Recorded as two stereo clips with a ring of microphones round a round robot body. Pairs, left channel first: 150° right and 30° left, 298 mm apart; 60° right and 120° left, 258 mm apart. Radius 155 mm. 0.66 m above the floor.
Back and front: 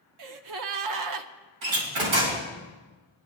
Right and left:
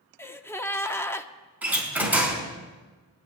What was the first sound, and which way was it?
A gasp, 20° left.